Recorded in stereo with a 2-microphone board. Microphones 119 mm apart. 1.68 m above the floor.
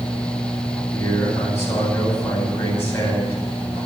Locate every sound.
0.9 s a man speaking: 20° left (ahead or behind), 9 m